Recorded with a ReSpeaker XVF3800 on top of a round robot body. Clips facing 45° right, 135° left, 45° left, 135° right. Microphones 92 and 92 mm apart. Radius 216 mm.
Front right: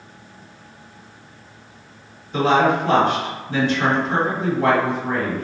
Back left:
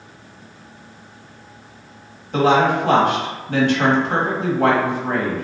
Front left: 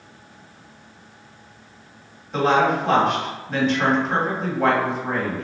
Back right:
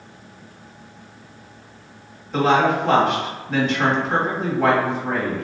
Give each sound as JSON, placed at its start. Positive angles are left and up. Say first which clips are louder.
{"t": 2.3, "sound": "a woman speaking", "louder": "back left 1 dB, back right 1 dB", "azimuth_deg": 135, "distance_m": 1.4}